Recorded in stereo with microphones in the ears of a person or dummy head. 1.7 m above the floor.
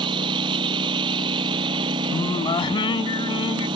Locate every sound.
0.0 s a lawn mower: 30° right (ahead or behind)
2.1 s singing: 20° left (ahead or behind)